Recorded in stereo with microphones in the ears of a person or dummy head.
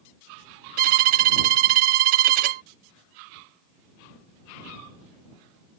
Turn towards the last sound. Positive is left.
turn(degrees=-45)  # may be behind; listen again after turning